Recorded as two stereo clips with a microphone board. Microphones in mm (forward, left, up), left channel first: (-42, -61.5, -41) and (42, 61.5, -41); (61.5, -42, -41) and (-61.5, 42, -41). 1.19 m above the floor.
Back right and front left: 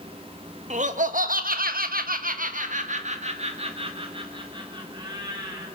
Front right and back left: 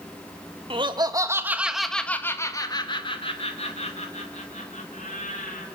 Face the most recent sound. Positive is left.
turn(degrees=-5)